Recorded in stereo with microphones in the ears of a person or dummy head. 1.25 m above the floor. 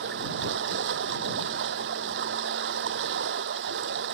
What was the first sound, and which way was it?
Running water, 70° right (ahead or behind).